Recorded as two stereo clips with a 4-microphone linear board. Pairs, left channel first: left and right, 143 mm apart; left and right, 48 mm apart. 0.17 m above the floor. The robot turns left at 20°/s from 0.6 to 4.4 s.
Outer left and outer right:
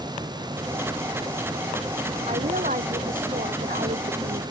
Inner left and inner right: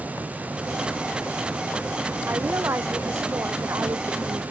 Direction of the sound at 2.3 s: 60° right.